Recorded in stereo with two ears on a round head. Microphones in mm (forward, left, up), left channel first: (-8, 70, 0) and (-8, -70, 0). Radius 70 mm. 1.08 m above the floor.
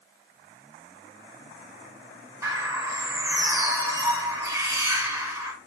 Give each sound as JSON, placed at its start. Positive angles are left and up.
{"t": 2.4, "sound": "a bird", "side_deg": -20, "distance_m": 5.0}